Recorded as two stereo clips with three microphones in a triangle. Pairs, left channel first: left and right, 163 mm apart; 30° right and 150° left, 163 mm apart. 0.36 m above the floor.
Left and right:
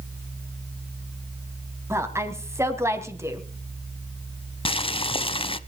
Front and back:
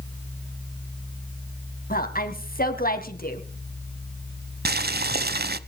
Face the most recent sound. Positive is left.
turn(degrees=145)